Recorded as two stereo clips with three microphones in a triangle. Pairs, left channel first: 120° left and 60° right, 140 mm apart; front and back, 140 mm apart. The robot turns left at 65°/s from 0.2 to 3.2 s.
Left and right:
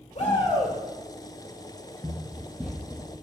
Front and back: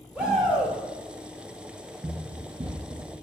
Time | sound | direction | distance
0.1 | a shout | 95° left | 1.9 m
2.0 | running footsteps | 140° right | 1.1 m